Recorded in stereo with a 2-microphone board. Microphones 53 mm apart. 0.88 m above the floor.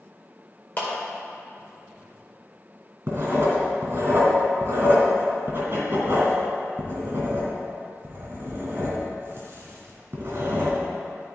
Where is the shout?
I don't hear a shout.